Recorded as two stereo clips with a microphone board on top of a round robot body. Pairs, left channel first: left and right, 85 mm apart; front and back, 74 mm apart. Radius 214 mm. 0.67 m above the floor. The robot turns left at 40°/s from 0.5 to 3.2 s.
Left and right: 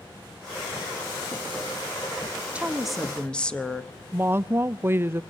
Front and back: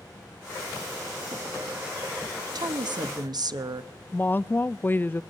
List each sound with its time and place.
2.5 s a woman speaking: 165° right, 1.4 m; by 3.9 s 170° left, 1.4 m
4.1 s a woman speaking: 45° right, 0.6 m